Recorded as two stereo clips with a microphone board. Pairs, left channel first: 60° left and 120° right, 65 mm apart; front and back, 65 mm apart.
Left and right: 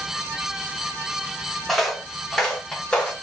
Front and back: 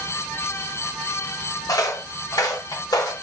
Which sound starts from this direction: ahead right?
Footsteps, at 1.7 s.